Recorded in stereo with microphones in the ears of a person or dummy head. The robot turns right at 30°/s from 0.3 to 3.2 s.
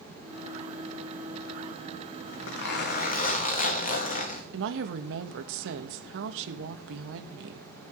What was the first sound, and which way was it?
A zipper, 70° left (ahead or behind).